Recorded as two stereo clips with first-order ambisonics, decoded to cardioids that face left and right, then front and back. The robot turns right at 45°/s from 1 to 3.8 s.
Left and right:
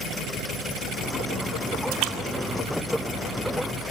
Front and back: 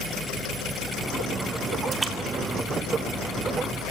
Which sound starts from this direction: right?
A splash, at 1.9 s.